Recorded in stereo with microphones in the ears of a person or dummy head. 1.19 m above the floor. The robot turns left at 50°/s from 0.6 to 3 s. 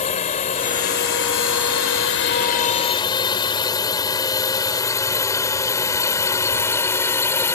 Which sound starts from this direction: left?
A drone, at 0.0 s.